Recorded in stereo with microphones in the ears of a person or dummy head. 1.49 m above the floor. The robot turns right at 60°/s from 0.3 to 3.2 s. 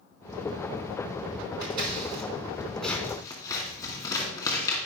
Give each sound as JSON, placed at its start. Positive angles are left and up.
{"t": 1.6, "sound": "scissors", "side_deg": -55, "distance_m": 2.5}